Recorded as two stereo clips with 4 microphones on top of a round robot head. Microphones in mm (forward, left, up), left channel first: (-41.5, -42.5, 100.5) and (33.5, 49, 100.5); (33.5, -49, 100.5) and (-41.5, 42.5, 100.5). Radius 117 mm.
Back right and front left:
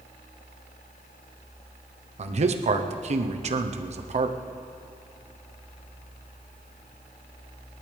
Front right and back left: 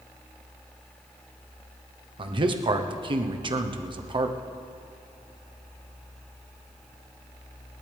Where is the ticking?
I don't hear ticking.